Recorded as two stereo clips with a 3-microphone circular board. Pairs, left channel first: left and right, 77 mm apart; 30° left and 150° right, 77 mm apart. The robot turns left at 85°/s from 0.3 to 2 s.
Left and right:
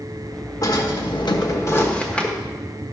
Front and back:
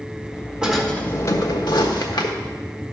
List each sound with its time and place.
0.6 s a drawer: 135° left, 1.3 m; by 2.4 s 15° left, 1.3 m